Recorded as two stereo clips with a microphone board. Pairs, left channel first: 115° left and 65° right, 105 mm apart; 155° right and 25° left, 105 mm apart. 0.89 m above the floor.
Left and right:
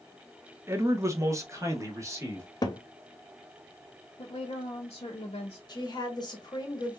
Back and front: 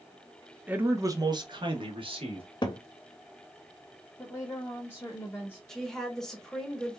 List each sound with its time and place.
0.7 s a man speaking: 35° right, 0.5 m; by 2.5 s 5° right, 1.3 m
2.6 s a cupboard door: 160° left, 0.5 m
4.2 s a woman speaking: 140° left, 0.8 m
5.7 s a woman speaking: 120° left, 1.0 m